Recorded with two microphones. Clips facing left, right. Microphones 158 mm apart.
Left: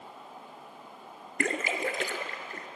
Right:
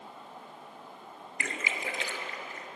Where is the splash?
55° left (ahead or behind), 0.6 m.